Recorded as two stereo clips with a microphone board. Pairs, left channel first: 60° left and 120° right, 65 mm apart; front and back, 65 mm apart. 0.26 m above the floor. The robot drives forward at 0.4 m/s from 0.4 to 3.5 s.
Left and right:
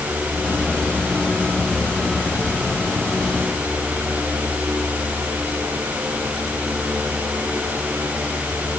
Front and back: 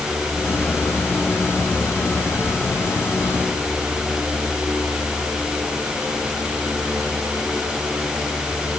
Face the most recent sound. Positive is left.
No sound to turn to.